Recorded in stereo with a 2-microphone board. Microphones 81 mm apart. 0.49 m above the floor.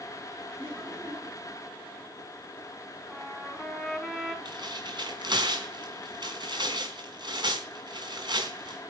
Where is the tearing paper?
65° right (ahead or behind), 4.5 m.